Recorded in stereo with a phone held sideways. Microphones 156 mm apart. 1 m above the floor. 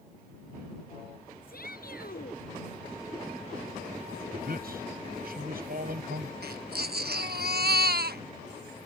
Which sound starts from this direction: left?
A shout, at 1.5 s.